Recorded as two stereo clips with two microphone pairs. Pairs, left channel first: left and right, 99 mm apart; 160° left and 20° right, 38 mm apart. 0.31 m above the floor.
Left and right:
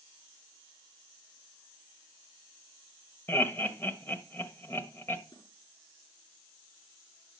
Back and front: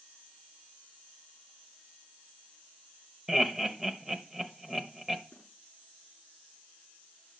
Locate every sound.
3.3 s laughter: 50° left, 1.1 m
5.3 s a snare drum: 125° left, 5 m